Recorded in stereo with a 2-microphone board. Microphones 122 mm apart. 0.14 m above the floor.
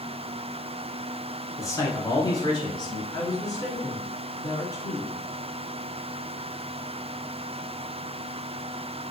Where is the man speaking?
25° left (ahead or behind), 1.4 m; by 3.0 s 40° left (ahead or behind), 1.6 m.